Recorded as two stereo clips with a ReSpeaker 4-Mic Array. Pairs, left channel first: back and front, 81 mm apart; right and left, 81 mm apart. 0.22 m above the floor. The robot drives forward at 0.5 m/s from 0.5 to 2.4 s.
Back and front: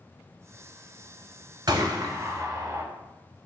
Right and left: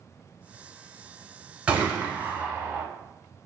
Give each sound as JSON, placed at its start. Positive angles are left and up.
{"t": 1.7, "sound": "a gunshot", "azimuth_deg": 20, "distance_m": 0.7}